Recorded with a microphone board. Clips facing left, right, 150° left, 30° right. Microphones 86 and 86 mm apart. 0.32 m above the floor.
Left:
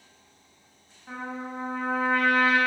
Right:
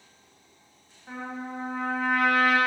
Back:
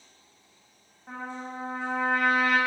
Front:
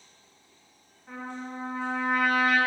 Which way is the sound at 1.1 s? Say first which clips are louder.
Even, back 1 dB; 165° right.